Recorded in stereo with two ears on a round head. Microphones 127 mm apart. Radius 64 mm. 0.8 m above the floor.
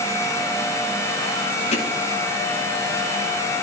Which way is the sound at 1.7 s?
50° left (ahead or behind).